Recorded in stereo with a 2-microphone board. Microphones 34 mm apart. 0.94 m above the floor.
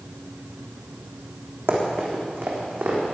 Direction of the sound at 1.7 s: 75° right (ahead or behind).